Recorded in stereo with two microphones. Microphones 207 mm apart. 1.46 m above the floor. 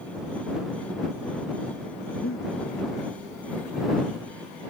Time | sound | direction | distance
2.2 | breathing | 85° left | ?